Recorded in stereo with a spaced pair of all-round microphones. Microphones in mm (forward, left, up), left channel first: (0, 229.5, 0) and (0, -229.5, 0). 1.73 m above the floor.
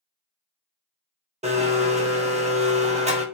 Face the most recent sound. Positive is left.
turn(degrees=-15)  # may be behind; listen again after turning